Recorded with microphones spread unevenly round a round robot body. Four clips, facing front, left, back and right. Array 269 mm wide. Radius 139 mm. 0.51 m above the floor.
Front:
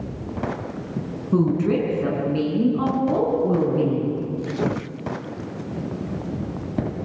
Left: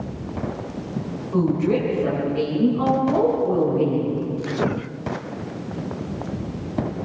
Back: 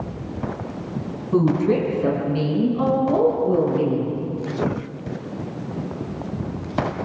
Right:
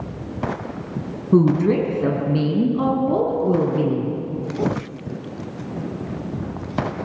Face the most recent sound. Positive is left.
turn(degrees=-60)